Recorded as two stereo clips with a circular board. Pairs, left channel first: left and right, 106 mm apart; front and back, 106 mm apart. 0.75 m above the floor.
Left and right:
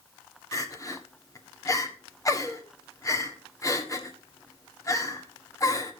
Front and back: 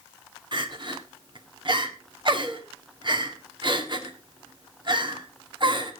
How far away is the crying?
About 1.8 m.